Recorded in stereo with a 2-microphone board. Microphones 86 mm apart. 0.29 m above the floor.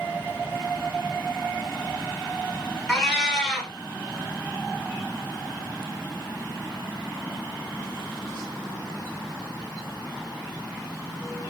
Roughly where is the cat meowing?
Centre.